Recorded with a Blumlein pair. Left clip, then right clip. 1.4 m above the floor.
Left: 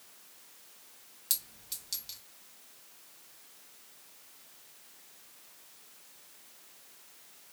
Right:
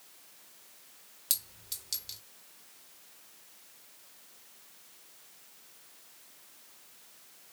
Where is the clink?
5° right, 1.9 m.